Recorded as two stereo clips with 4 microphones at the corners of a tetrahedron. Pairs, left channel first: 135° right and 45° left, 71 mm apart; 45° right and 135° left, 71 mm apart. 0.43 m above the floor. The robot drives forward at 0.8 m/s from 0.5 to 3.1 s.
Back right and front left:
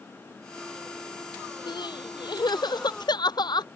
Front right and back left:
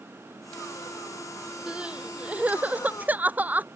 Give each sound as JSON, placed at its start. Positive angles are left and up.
{"t": 1.7, "sound": "crying", "azimuth_deg": -150}